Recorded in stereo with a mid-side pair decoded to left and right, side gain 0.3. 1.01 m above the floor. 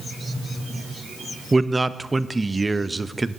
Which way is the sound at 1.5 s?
30° right.